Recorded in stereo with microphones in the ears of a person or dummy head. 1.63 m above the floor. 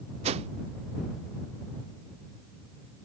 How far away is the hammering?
I don't hear hammering.